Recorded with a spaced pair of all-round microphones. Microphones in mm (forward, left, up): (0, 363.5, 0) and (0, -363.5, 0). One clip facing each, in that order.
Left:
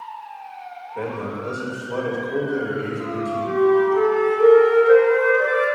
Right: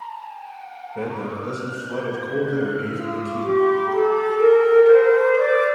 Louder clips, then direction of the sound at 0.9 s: Even; 30° right (ahead or behind).